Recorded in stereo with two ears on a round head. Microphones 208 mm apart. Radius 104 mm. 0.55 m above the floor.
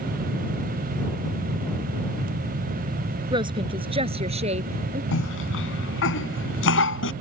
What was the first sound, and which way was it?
A woman speaking, 20° right (ahead or behind).